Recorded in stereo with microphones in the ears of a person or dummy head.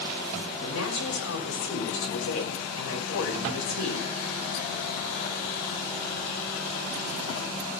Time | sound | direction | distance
0.6 | a woman speaking | 85° left | 6 m